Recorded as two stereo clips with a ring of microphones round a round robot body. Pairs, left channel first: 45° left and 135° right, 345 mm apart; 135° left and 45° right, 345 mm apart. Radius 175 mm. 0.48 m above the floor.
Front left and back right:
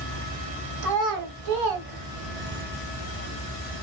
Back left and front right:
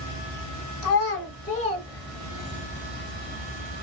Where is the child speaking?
Straight behind, 1.7 m; by 2.6 s 120° right, 1.6 m.